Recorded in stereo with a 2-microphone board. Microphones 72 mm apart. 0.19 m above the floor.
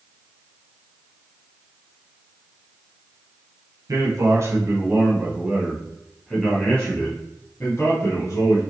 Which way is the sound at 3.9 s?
45° right (ahead or behind).